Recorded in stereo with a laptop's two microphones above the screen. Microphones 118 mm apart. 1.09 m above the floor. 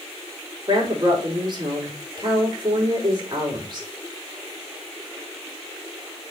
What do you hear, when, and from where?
0.7 s a woman speaking: 45° right (ahead or behind), 3.5 m